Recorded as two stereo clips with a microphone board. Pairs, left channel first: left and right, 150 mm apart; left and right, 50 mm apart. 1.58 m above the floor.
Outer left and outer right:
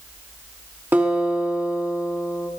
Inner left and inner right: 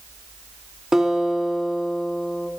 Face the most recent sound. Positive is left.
turn(degrees=-15)  # may be behind; listen again after turning